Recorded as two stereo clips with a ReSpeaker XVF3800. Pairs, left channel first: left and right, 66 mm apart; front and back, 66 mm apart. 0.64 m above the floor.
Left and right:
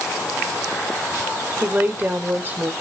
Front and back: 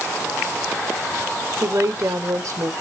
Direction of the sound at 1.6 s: 150° right.